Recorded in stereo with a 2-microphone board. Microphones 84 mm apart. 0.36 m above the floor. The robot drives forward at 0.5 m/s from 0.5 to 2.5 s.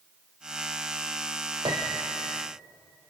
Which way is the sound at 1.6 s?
80° right.